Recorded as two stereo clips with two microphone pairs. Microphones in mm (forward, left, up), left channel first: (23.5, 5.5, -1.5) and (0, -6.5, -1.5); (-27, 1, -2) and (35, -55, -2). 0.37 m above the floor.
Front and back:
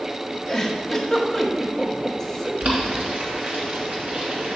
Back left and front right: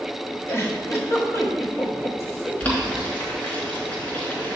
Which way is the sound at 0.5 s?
105° left.